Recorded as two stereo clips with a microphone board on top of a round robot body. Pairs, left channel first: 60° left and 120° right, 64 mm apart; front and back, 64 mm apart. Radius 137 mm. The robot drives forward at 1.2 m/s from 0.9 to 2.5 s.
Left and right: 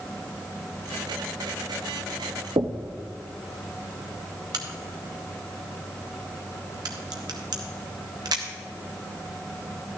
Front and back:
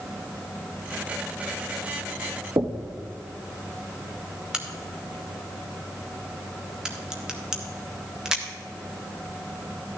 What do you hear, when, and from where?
2.6 s knocking: 135° right, 0.6 m
4.5 s a crack: 100° right, 0.6 m